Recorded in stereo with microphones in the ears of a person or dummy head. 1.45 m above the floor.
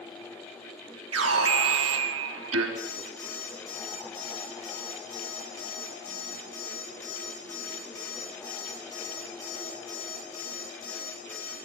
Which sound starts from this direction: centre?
An alarm clock, at 2.8 s.